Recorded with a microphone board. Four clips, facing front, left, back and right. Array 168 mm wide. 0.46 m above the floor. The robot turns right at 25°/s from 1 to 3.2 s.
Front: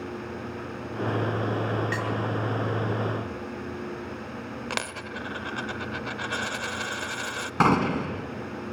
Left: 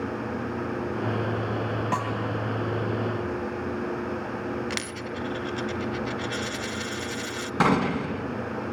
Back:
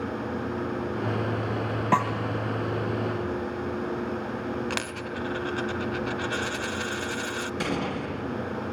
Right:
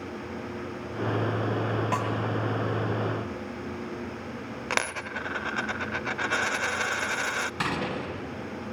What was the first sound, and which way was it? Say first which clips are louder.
A snare drum: left 3 dB, back 7 dB; 175° left.